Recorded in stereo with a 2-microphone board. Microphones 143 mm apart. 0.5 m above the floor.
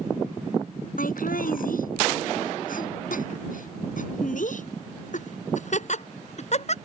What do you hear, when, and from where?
1.0 s laughter: 80° left; by 6.8 s 50° left (ahead or behind)